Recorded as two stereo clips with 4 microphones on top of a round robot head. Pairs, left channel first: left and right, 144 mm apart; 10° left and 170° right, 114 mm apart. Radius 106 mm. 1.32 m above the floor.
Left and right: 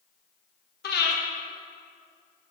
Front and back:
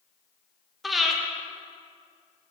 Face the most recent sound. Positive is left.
turn(degrees=100)